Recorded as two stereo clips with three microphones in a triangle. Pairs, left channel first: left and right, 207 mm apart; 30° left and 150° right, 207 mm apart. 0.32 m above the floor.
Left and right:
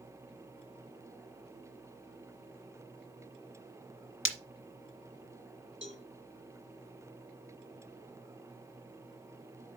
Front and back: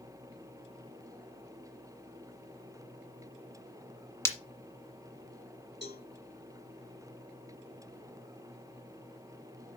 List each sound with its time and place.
4.2 s breaking glass: 105° left, 1.5 m
5.8 s a cowbell: 115° right, 1.6 m